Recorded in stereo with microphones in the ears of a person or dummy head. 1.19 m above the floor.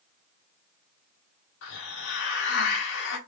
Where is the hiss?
60° left (ahead or behind), 2 m.